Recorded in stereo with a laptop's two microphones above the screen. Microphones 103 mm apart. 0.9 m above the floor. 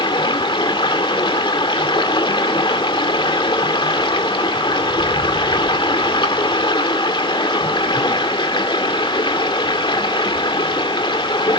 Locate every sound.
0.0 s running water: 55° left (ahead or behind), 1.9 m